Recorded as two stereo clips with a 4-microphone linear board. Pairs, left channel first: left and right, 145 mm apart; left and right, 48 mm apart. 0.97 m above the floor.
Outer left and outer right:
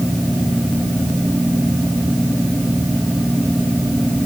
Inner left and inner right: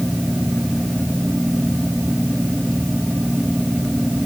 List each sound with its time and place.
Only background noise.